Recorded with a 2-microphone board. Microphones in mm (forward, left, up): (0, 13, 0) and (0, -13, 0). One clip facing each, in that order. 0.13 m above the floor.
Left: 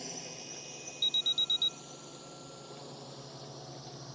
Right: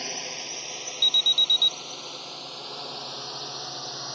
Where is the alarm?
40° right (ahead or behind).